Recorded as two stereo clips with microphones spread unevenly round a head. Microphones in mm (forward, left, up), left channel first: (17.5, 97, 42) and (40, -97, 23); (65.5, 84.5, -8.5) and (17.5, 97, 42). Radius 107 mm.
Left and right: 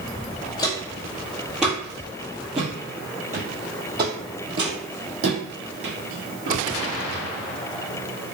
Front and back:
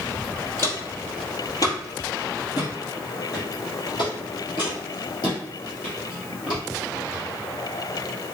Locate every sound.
0.6 s footsteps: 105° left, 1.6 m; by 7.2 s 70° right, 3.5 m